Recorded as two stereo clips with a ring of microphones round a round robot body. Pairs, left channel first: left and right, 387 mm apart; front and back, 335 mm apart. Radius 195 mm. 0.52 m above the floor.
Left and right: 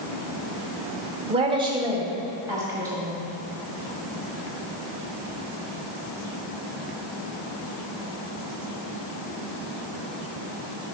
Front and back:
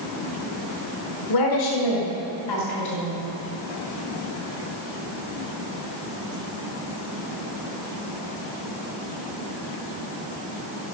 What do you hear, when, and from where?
1.3 s a woman speaking: 15° right, 1.4 m; by 3.2 s 5° right, 4 m